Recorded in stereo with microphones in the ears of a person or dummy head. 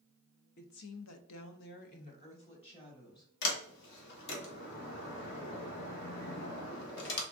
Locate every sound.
0.6 s a woman speaking: 50° left (ahead or behind), 0.8 m; by 3.3 s 20° left (ahead or behind), 1.9 m
3.4 s a sliding door: 60° left (ahead or behind), 1.2 m